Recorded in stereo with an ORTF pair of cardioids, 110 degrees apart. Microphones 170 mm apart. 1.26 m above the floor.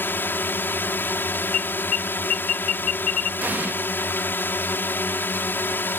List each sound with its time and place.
0.0 s a drone: 15° left
1.5 s an alarm: 55° left
3.4 s an explosion: 10° right